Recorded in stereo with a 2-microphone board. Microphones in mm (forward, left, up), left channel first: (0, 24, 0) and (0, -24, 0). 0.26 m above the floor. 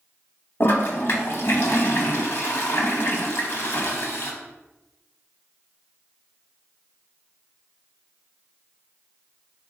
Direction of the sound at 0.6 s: 55° left (ahead or behind).